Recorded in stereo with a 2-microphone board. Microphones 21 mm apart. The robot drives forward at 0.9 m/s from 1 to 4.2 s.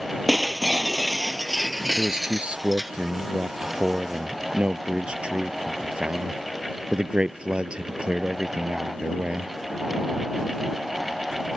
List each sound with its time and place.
0.3 s breaking glass: centre (ahead or behind); by 2.9 s 5° right (ahead or behind)
2.0 s a man speaking: 65° right (ahead or behind); by 9.5 s 50° right (ahead or behind)